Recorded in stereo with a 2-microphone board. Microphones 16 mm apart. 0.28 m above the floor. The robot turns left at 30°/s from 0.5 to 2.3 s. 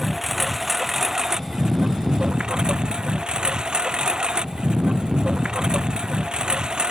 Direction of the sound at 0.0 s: 15° right.